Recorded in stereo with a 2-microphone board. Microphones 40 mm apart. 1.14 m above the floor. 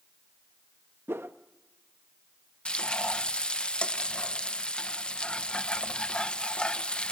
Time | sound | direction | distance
1.1 | a whoosh | 75° right (ahead or behind) | 0.8 m
2.6 | frying | 25° left (ahead or behind) | 0.9 m